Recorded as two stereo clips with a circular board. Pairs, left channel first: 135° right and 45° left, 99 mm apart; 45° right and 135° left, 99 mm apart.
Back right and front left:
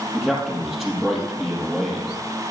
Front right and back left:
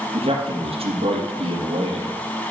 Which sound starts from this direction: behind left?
A man speaking, at 0.1 s.